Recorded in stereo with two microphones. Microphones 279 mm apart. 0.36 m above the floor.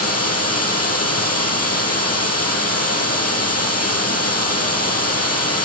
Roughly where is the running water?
Left.